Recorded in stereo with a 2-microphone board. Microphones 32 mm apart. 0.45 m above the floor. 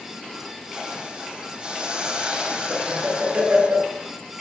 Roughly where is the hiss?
Right.